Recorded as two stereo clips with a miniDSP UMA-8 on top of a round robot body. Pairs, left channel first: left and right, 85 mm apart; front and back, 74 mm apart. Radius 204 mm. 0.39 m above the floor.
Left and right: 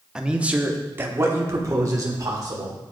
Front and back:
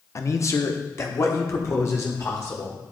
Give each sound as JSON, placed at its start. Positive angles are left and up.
{"t": 0.1, "sound": "a man speaking", "azimuth_deg": -10, "distance_m": 1.2}